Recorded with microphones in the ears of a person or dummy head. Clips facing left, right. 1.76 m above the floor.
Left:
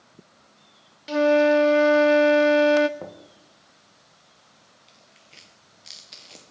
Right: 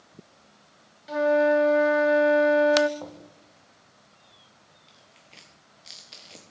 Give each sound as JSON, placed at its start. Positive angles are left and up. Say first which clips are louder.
{"t": 1.1, "sound": "a flute", "louder": "left 3 dB", "side_deg": 40, "distance_m": 0.5}
{"t": 3.0, "sound": "knocking", "louder": "left 2 dB", "side_deg": 35, "distance_m": 1.4}
{"t": 4.9, "sound": "tearing paper", "louder": "right 1 dB", "side_deg": 0, "distance_m": 1.3}